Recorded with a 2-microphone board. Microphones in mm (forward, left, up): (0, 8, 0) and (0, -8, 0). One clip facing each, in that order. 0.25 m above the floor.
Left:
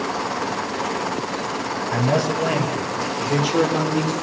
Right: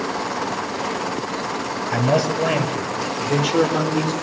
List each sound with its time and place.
1.9 s a man speaking: 15° right (ahead or behind), 4.5 m; by 4.1 s centre (ahead or behind), 7 m